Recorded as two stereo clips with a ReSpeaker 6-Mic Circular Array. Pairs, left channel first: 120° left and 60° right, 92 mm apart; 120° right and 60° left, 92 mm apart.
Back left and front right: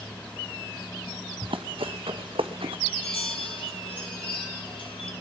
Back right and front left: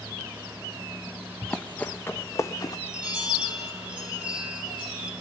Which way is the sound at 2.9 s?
140° left.